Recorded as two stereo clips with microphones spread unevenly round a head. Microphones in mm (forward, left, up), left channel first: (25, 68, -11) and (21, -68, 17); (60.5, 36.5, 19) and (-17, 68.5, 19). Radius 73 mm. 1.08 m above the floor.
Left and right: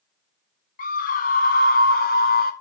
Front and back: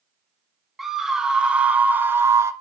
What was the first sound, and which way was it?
A scream, 70° left.